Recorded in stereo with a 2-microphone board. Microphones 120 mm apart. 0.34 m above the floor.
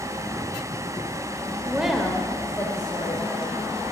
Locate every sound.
1.6 s a woman speaking: 10° right (ahead or behind), 0.8 m; by 3.6 s 35° left (ahead or behind), 2.0 m